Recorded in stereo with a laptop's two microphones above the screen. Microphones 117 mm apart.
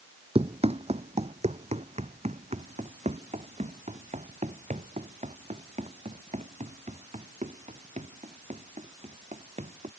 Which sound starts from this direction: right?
Running footsteps, at 0.3 s.